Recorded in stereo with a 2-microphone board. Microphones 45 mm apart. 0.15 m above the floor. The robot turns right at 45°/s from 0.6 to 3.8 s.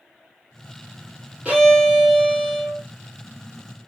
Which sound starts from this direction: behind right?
A violin, at 1.4 s.